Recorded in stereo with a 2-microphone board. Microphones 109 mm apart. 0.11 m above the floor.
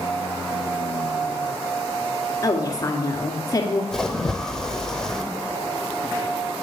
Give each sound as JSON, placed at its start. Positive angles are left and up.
{"t": 2.4, "sound": "a woman speaking", "side_deg": 35, "distance_m": 1.7}
{"t": 3.9, "sound": "a splash", "side_deg": 5, "distance_m": 0.9}